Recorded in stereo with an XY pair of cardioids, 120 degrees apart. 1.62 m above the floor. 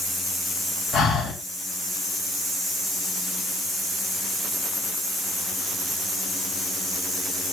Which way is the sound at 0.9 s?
55° left.